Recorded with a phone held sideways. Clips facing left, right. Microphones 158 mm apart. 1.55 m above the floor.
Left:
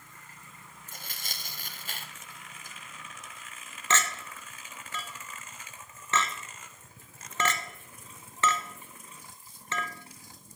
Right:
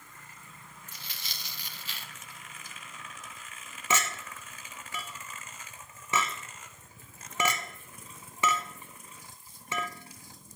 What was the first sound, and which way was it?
Tearing paper, 50° left (ahead or behind).